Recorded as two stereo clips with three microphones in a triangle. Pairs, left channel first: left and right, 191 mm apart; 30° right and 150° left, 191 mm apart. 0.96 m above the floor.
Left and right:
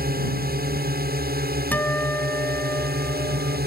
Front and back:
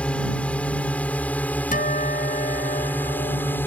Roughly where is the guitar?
Ahead.